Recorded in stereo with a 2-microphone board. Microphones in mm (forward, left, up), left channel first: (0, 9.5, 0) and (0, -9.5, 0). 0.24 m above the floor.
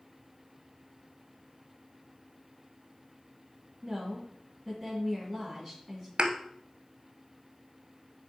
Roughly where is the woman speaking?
Centre.